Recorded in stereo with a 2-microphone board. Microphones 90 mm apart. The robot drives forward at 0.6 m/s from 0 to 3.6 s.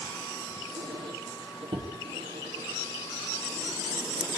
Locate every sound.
0.8 s a squeak: 65° right (ahead or behind), 8.5 m; by 4.3 s 55° right (ahead or behind), 9.5 m